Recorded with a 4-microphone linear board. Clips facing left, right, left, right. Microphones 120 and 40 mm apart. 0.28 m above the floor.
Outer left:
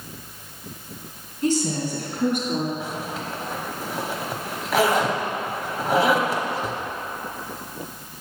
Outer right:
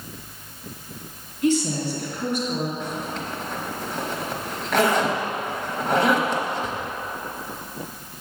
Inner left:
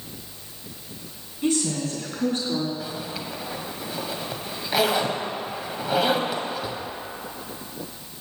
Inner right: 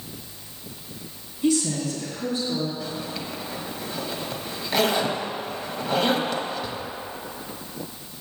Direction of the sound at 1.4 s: 40° left (ahead or behind).